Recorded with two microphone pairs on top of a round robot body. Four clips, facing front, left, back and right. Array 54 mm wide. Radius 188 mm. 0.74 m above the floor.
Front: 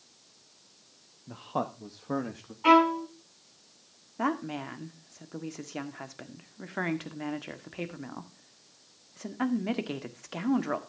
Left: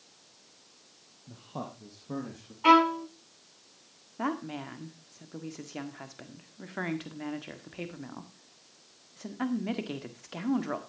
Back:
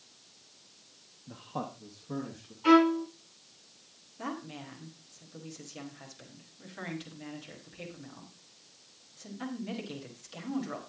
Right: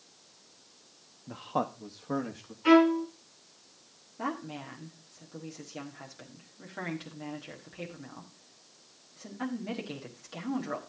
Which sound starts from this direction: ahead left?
A violin, at 2.6 s.